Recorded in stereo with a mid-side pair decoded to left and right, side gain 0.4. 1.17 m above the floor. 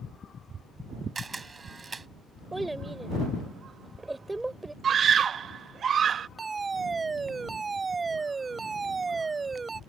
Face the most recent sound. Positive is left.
turn(degrees=-35)